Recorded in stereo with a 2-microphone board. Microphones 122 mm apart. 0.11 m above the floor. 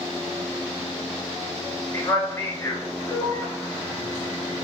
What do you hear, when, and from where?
1.9 s a man speaking: 25° left (ahead or behind), 1.3 m